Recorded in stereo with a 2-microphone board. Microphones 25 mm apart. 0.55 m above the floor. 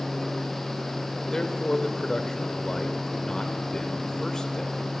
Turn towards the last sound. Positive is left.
turn(degrees=25)  # may be behind; listen again after turning